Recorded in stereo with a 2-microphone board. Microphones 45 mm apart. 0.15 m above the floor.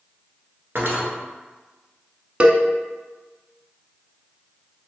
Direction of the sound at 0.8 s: 55° right (ahead or behind).